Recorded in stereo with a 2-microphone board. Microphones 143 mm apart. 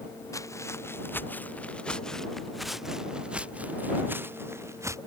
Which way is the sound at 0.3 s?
20° left (ahead or behind).